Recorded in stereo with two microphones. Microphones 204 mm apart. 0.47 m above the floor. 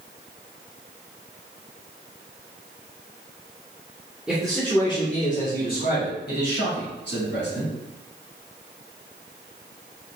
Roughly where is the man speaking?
Centre.